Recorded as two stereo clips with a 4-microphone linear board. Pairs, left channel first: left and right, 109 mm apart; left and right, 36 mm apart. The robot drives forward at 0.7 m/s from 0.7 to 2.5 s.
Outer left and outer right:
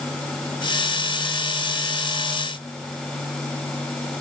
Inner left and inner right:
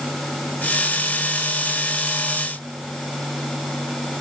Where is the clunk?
No clunk in this recording.